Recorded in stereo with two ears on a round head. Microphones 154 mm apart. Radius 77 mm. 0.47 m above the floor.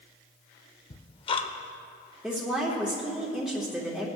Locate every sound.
0.9 s ticking: 30° left (ahead or behind), 0.6 m
2.2 s a woman speaking: 5° right (ahead or behind), 1.2 m